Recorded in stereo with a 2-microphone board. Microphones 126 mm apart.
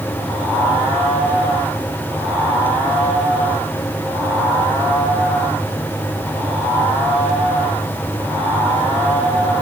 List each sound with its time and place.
Only background noise.